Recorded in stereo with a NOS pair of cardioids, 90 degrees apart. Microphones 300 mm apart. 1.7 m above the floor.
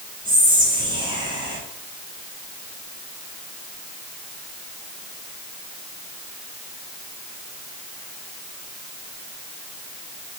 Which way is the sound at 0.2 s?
15° right.